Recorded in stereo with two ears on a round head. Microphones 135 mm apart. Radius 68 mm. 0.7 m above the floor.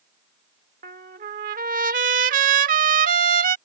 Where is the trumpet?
60° right (ahead or behind).